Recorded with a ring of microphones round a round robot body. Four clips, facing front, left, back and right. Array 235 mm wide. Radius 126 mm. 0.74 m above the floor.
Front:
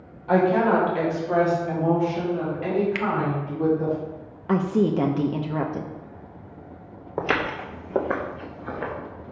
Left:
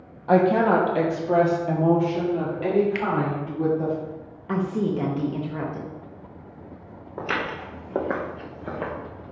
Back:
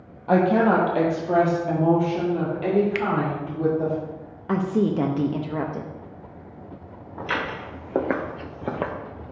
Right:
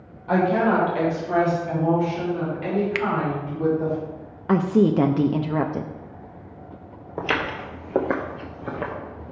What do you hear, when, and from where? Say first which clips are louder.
0.3 s a woman speaking: left 2 dB, back 1 dB; 130° left, 1.1 m; by 4.0 s 140° left, 3 m
3.0 s a finger snap: right 2 dB, back 1 dB; 95° right, 0.6 m
4.5 s a woman speaking: right 6 dB, front 1 dB; 80° right, 0.6 m
7.2 s footsteps: right 3 dB, front 3 dB; 20° right, 1.1 m; by 8.9 s straight behind, 1.3 m